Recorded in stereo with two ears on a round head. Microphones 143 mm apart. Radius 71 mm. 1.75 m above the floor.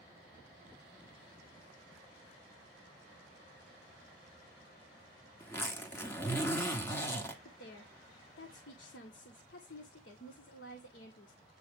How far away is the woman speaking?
About 1.7 m.